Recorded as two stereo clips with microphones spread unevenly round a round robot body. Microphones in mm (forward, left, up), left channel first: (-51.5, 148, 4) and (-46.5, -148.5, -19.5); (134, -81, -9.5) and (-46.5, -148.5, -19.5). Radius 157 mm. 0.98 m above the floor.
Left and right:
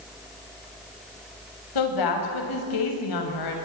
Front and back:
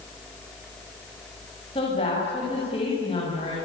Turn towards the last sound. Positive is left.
turn(degrees=95)